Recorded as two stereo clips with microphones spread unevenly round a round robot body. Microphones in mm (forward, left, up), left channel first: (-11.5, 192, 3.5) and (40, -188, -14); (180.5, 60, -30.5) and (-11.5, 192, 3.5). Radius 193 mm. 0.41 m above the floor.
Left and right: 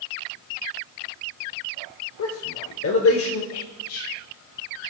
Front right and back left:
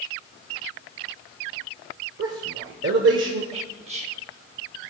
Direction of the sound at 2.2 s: 140° left.